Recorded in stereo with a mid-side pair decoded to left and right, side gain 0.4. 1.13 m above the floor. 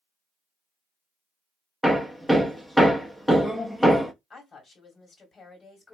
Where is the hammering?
5° left, 1.0 m.